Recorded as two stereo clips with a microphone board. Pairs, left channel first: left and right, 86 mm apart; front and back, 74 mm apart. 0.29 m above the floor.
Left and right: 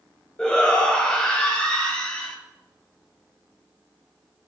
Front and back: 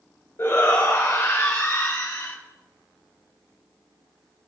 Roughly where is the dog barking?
No dog barking in this recording.